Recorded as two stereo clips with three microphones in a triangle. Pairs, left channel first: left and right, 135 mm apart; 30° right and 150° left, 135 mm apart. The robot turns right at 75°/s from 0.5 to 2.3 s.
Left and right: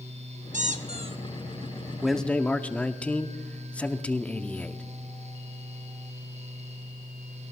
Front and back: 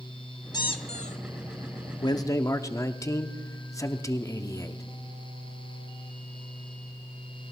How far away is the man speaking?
About 0.7 m.